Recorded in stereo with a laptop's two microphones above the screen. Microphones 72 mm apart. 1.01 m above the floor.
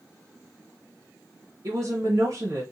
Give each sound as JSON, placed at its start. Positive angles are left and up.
{"t": 1.6, "sound": "a woman speaking", "side_deg": -50, "distance_m": 0.8}